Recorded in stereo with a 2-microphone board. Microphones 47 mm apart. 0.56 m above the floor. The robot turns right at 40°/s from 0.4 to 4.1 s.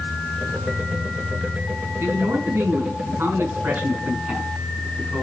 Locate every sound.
2.0 s a man speaking: 115° right, 5.5 m; by 5.2 s 35° right, 5.5 m